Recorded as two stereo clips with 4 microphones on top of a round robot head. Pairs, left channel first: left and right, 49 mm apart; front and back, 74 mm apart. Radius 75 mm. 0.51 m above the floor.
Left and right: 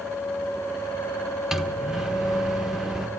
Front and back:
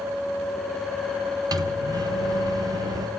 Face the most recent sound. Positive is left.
turn(degrees=-170)